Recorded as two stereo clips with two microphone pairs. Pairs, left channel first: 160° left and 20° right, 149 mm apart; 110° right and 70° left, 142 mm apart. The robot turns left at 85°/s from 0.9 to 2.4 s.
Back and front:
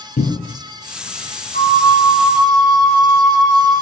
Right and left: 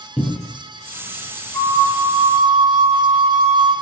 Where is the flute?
170° left, 1.0 m; by 3.7 s 95° left, 1.0 m.